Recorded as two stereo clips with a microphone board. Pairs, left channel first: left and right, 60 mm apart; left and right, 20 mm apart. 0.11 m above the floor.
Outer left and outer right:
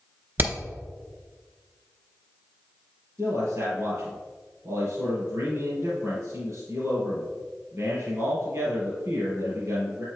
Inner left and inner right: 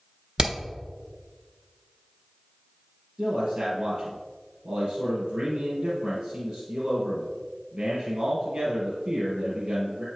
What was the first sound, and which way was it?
Hammering, 35° right (ahead or behind).